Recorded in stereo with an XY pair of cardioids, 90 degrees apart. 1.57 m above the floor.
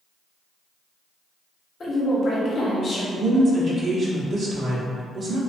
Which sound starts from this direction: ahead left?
A woman speaking, at 1.8 s.